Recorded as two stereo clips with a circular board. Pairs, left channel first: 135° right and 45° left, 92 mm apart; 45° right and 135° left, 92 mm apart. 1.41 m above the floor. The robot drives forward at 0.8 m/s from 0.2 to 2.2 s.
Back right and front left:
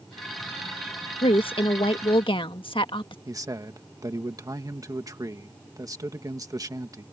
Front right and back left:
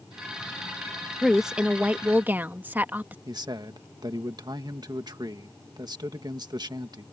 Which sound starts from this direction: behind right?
A woman speaking, at 1.2 s.